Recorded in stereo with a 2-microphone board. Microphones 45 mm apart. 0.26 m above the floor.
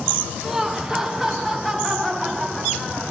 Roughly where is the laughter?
Centre.